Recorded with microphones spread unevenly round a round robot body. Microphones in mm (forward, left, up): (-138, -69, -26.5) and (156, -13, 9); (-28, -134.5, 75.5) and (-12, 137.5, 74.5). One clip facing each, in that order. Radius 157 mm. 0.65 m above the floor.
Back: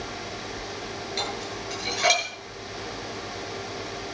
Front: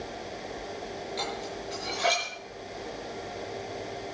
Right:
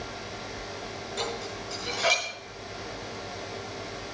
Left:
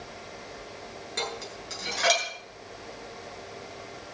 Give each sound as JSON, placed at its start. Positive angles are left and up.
{"t": 1.2, "sound": "dishes clattering", "azimuth_deg": 145, "distance_m": 8.0}